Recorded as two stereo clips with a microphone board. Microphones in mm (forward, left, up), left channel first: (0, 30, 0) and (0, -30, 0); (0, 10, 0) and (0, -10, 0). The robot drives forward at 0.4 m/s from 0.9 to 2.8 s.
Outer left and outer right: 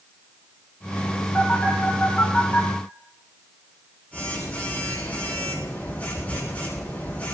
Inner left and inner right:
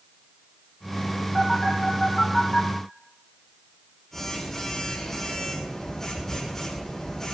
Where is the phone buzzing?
25° left (ahead or behind), 7 m.